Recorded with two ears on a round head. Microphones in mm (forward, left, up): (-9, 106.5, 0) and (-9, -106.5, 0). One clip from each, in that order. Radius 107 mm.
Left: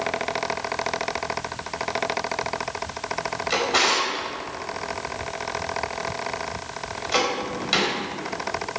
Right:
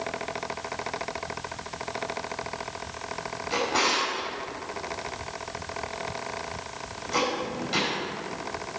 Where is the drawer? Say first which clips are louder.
Left 4 dB; 50° left (ahead or behind), 4.5 m.